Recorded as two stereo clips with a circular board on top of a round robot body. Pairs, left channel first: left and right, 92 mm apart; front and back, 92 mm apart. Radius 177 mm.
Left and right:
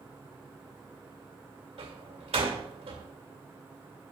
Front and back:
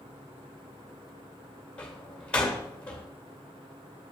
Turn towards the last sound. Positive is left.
turn(degrees=-80)